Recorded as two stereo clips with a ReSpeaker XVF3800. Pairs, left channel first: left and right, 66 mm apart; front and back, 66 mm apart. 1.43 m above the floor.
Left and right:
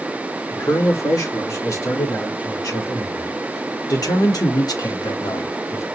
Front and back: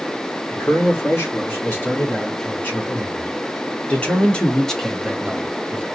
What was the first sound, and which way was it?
A man speaking, 55° left.